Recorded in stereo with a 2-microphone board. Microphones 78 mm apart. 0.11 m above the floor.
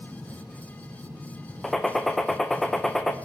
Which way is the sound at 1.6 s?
5° left (ahead or behind).